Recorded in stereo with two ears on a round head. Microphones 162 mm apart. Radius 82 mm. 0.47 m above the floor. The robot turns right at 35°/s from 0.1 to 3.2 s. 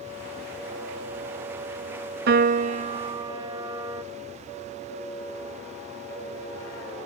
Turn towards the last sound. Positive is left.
turn(degrees=-20)